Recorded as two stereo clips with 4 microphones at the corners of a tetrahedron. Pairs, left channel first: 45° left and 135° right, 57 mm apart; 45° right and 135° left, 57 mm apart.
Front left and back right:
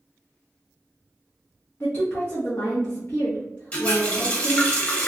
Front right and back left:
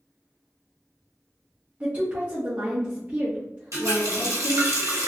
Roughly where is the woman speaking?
Left.